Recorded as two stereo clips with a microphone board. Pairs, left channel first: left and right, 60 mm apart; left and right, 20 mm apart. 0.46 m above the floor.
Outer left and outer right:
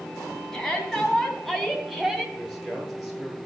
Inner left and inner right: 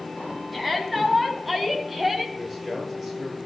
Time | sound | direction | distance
0.5 | a shout | 10° left (ahead or behind) | 4 m
2.4 | a man speaking | centre (ahead or behind) | 9.5 m